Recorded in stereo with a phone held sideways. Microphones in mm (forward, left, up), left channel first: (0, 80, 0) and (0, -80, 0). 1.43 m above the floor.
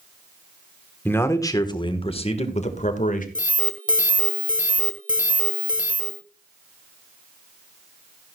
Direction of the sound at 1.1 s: 10° left (ahead or behind).